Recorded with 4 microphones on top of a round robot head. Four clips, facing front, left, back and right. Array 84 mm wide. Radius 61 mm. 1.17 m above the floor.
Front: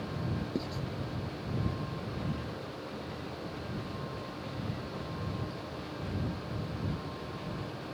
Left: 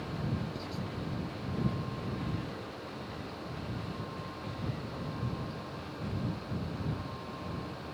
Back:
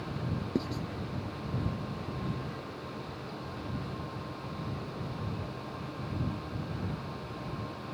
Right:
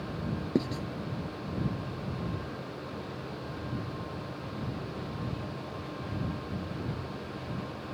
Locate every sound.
0.6 s writing: 95° right